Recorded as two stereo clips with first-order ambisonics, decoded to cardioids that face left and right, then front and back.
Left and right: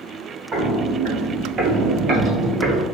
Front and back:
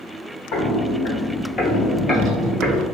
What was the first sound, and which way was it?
Footsteps, 30° right.